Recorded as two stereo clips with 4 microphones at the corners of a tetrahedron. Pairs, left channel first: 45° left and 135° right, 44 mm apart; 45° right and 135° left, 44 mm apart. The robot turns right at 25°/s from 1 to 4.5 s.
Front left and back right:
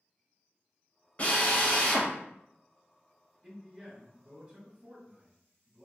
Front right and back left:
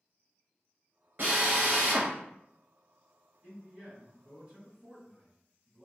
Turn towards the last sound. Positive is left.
turn(degrees=-165)